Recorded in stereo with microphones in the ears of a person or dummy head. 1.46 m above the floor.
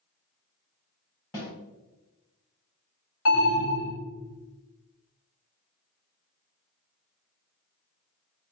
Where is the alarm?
70° left (ahead or behind), 1.6 m.